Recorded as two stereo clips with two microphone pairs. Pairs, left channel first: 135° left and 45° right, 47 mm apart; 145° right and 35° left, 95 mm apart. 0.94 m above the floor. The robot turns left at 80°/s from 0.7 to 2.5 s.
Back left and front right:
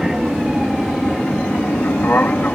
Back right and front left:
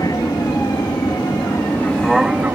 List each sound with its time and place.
0.0 s an aircraft: 120° right; by 2.6 s 95° left